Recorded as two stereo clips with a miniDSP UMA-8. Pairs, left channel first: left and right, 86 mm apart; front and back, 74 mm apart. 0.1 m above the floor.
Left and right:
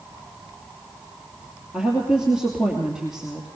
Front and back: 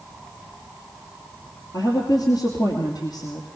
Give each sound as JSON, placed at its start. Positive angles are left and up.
{"t": 1.7, "sound": "a woman speaking", "azimuth_deg": -10, "distance_m": 2.5}